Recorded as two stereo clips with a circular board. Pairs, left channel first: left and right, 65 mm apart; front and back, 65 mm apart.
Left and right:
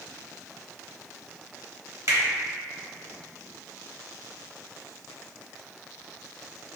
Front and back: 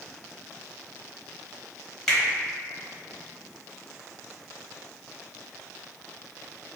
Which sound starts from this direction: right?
A finger snap, at 2.1 s.